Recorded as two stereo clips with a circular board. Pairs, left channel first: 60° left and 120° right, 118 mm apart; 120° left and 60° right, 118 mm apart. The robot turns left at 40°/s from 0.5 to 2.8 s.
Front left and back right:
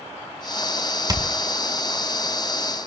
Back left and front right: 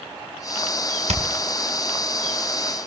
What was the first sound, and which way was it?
Hammering, 65° right.